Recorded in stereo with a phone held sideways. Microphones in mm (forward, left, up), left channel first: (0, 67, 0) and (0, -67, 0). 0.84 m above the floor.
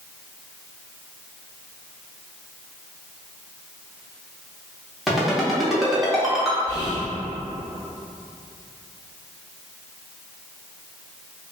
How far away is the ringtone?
About 0.6 m.